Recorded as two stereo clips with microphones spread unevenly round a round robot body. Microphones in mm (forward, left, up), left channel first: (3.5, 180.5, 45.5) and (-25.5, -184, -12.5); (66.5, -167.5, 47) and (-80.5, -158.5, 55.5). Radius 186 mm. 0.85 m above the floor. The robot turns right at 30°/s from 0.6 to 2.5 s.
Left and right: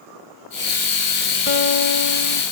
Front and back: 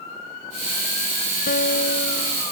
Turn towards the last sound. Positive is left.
turn(degrees=55)